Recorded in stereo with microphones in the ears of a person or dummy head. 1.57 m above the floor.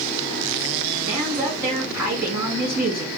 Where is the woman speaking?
15° right (ahead or behind), 2.5 m.